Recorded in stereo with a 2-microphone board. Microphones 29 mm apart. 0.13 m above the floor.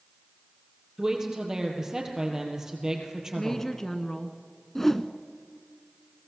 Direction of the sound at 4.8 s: 10° left (ahead or behind).